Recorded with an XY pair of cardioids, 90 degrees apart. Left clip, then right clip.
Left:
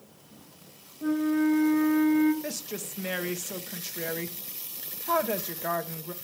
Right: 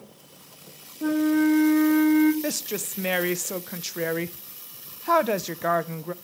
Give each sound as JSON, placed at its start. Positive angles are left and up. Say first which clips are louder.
{"t": 1.0, "sound": "a flute", "louder": "right 4 dB", "azimuth_deg": -50, "distance_m": 1.6}
{"t": 2.4, "sound": "a woman speaking", "louder": "right 6 dB", "azimuth_deg": -55, "distance_m": 0.8}